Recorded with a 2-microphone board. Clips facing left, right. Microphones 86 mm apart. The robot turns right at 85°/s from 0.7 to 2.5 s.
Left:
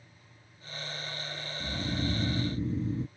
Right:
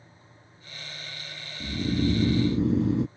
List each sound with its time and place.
1.6 s snoring: 155° right; by 3.1 s 80° right